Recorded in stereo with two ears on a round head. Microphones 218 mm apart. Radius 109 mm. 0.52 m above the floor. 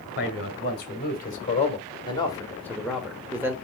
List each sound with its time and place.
0.2 s a man speaking: 45° left (ahead or behind), 2.5 m; by 3.5 s 10° right (ahead or behind), 1.6 m